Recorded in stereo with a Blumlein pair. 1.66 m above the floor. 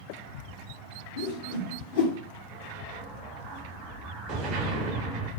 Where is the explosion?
40° right, 0.9 m.